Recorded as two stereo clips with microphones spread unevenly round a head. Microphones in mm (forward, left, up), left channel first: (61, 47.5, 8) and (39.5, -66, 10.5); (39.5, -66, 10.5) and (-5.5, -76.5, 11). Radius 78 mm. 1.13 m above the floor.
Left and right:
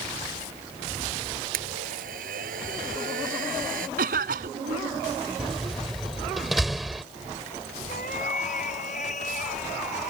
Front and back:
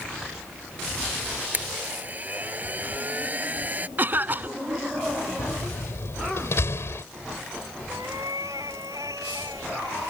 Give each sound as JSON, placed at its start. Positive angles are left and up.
{"t": 1.5, "sound": "a blender", "azimuth_deg": -115}
{"t": 4.0, "sound": "a cough", "azimuth_deg": -120}
{"t": 5.4, "sound": "a door slam", "azimuth_deg": -10}
{"t": 7.9, "sound": "a cat meowing", "azimuth_deg": 130}